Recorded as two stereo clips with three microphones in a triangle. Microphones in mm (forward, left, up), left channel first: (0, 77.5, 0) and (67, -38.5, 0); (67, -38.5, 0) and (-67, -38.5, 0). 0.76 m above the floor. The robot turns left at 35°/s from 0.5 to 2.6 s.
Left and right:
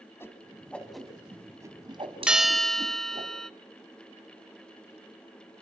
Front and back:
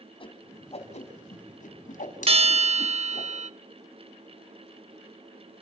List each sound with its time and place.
0.2 s a whoosh: 45° left, 2 m; by 3.3 s 25° right, 2 m
2.3 s a bell: 140° right, 0.6 m; by 3.5 s 155° right, 0.6 m